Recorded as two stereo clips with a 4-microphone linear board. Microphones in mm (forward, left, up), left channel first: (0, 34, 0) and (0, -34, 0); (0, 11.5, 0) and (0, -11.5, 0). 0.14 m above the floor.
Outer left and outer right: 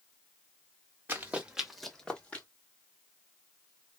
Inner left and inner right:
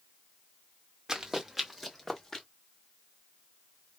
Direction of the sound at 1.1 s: 30° right (ahead or behind).